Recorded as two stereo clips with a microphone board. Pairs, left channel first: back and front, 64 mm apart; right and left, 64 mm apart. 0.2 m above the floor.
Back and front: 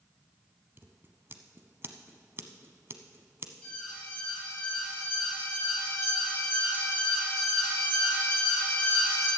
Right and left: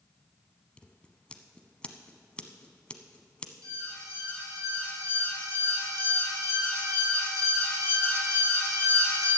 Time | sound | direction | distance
0.8 | scissors | 25° right | 0.8 m
3.6 | an alarm | 110° left | 5.5 m